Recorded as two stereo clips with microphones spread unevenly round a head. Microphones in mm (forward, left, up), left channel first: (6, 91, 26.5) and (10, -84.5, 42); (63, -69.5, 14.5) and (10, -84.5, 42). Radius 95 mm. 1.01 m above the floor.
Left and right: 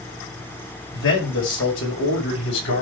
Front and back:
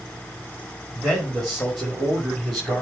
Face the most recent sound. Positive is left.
turn(degrees=105)